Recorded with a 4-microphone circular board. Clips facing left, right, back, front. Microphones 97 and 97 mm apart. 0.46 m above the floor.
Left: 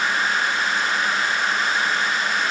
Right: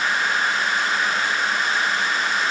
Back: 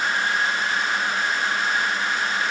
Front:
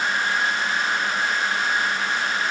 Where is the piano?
No piano in this recording.